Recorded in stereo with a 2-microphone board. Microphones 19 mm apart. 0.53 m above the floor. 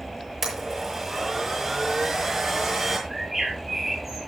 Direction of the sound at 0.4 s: 20° right (ahead or behind).